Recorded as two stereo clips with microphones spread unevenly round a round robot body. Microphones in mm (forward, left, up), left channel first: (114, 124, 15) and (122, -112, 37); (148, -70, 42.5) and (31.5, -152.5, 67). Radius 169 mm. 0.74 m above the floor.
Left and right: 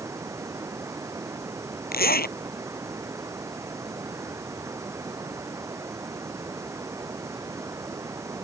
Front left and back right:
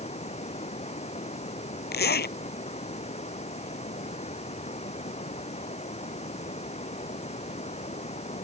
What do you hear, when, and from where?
0.0 s running water: 10° right
1.9 s a zipper: 40° left